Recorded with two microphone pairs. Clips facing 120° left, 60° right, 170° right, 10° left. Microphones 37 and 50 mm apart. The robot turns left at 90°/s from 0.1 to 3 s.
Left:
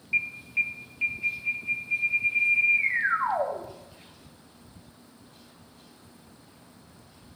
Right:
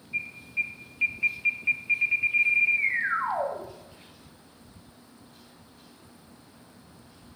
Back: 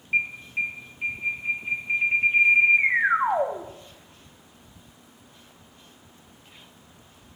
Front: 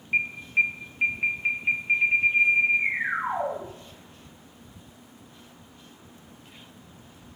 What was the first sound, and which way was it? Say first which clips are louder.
An alarm: left 4 dB, front 2 dB; 95° left.